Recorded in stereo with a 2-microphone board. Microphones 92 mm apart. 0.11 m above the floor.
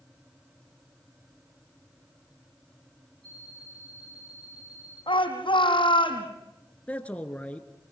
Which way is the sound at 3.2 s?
10° left (ahead or behind).